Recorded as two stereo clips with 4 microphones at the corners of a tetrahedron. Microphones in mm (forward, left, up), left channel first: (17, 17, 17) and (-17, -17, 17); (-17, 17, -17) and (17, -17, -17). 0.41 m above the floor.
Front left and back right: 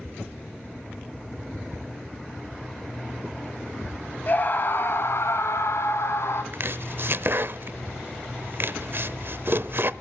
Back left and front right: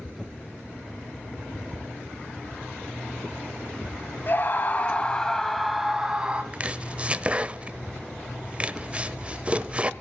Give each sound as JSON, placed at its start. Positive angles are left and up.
{"t": 4.3, "sound": "a scream", "azimuth_deg": 95, "distance_m": 2.5}
{"t": 6.5, "sound": "chopping", "azimuth_deg": -105, "distance_m": 0.8}